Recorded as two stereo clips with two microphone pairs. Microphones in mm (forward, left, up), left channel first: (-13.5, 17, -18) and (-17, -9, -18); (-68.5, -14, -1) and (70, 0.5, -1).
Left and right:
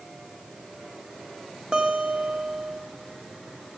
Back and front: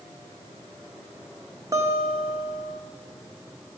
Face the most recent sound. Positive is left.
turn(degrees=-45)